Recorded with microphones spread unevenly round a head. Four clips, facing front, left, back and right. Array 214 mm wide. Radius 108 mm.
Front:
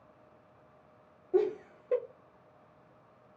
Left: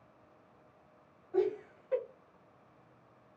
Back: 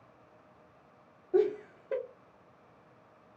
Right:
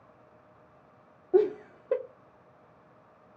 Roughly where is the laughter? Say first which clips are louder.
Right 7 dB, back 1 dB; right.